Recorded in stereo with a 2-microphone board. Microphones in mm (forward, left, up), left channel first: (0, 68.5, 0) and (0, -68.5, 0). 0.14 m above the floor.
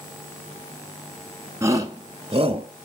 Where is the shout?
20° right (ahead or behind), 1.2 m; by 2.7 s 40° right (ahead or behind), 1.4 m.